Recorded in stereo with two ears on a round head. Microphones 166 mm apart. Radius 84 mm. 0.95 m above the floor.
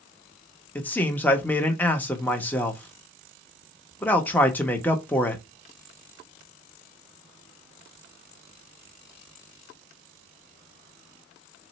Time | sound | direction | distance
0.8 | a man speaking | 10° left (ahead or behind) | 0.9 m